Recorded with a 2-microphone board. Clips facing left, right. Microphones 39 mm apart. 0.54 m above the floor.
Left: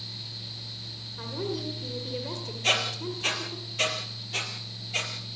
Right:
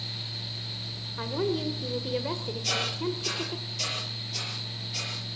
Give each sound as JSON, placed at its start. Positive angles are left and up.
{"t": 1.2, "sound": "a woman speaking", "side_deg": -30, "distance_m": 1.9}
{"t": 2.6, "sound": "a squeak", "side_deg": 45, "distance_m": 5.0}